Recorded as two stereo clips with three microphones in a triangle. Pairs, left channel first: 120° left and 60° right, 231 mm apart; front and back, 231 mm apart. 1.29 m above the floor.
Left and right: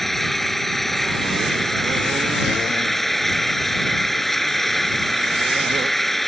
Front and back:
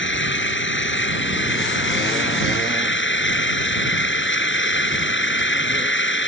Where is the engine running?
30° left.